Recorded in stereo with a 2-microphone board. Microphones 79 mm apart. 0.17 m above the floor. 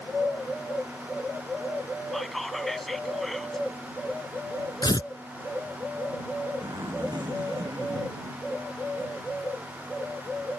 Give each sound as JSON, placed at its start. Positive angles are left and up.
{"t": 2.1, "sound": "whispering", "side_deg": 0}
{"t": 4.8, "sound": "tearing paper", "side_deg": 65}
{"t": 6.6, "sound": "a zipper", "side_deg": -65}